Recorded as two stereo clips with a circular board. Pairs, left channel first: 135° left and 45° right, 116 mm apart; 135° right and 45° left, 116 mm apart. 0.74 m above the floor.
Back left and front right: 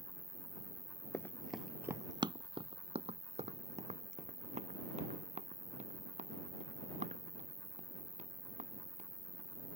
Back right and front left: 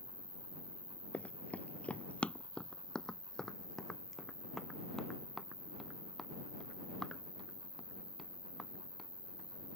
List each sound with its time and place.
0.0 s an insect: 80° left
1.1 s running footsteps: 160° left; by 9.8 s 45° right